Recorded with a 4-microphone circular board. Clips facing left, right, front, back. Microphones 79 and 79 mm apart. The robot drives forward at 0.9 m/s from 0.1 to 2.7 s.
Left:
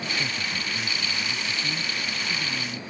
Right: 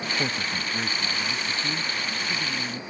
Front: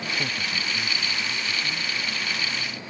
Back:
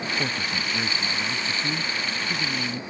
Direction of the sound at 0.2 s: 110° right.